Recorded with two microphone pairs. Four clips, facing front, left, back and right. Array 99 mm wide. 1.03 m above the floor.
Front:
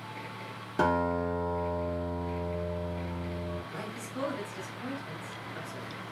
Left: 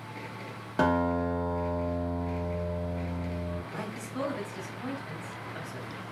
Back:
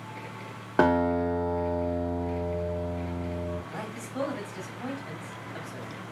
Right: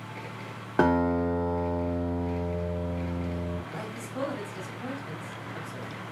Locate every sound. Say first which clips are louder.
0.8 s a guitar: right 3 dB, back 5 dB; 155° right, 1.0 m
3.7 s a man speaking: even, back 2 dB; straight behind, 2.5 m